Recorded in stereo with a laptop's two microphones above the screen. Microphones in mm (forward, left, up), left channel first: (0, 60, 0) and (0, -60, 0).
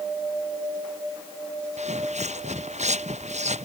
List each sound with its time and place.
1.8 s footsteps: 70° right (ahead or behind)